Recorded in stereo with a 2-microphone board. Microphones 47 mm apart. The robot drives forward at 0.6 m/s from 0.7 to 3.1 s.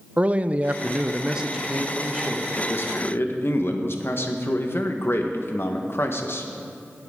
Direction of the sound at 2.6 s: 45° left (ahead or behind).